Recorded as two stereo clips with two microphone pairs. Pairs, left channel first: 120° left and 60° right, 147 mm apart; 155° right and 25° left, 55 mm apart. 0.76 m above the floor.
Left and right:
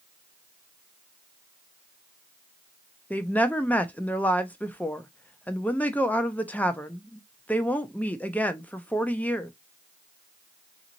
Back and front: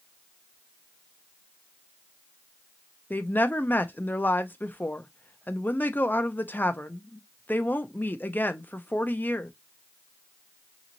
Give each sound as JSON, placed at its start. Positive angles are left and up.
{"t": 3.1, "sound": "a woman speaking", "azimuth_deg": -165, "distance_m": 0.6}